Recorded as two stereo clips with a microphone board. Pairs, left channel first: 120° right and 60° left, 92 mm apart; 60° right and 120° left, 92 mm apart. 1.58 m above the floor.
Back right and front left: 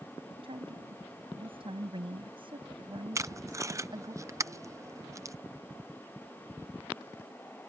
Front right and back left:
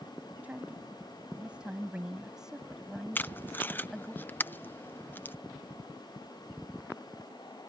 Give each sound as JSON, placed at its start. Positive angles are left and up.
{"t": 0.4, "sound": "a woman speaking", "azimuth_deg": 45}
{"t": 3.1, "sound": "tape being pulled", "azimuth_deg": 5}